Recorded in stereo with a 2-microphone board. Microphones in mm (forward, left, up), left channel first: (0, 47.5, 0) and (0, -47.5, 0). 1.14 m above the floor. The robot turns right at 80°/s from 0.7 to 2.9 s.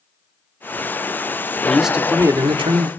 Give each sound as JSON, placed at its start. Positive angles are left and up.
{"t": 1.7, "sound": "a man speaking", "azimuth_deg": 170, "distance_m": 2.0}